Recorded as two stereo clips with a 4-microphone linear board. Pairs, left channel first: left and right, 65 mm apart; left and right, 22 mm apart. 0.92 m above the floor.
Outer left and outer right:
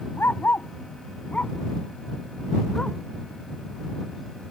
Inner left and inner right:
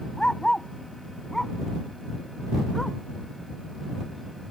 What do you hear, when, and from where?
0.2 s a dog barking: 35° left (ahead or behind); by 3.0 s 10° left (ahead or behind)